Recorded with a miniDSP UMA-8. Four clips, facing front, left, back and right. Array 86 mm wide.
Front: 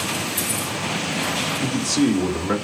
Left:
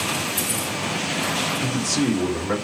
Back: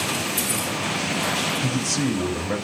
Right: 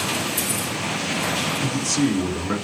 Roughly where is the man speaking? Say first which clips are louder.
Right 2 dB, front 4 dB; ahead left.